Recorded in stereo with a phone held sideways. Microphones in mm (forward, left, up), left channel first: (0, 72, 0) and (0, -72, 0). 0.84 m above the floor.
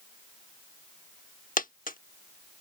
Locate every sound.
1.6 s a dropped coin: 75° left (ahead or behind)